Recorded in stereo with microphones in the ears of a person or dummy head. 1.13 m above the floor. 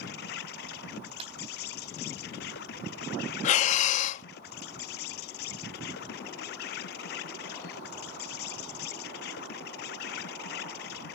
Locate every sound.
0.0 s an insect: 60° left (ahead or behind)
1.2 s a clap: 35° right (ahead or behind)
3.4 s breathing: 45° left (ahead or behind)